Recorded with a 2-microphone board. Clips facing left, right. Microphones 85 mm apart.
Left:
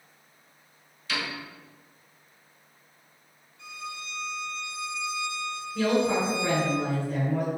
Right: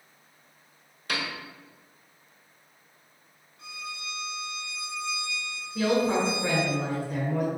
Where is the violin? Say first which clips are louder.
Left 1 dB; 50° right (ahead or behind), 0.8 m.